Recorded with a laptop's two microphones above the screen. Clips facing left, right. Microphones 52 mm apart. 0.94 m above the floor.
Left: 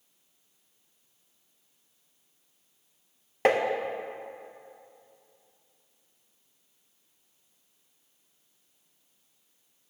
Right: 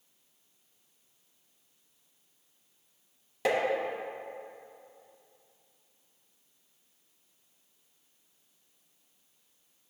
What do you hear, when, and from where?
3.5 s tapping: 40° left (ahead or behind), 0.6 m